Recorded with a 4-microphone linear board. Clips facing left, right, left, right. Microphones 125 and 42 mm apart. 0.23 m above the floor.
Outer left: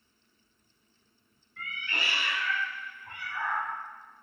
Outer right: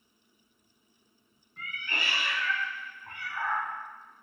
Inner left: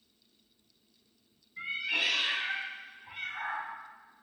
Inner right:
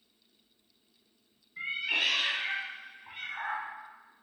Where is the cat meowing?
40° right (ahead or behind), 0.8 m; by 3.7 s 35° right (ahead or behind), 1.4 m.